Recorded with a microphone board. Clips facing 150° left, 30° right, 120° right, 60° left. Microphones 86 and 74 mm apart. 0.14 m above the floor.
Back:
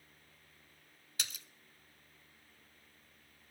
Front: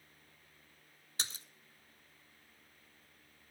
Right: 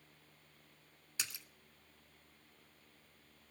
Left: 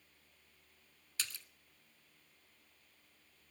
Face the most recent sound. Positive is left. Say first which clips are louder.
# front 2 dB, even
turn(degrees=-60)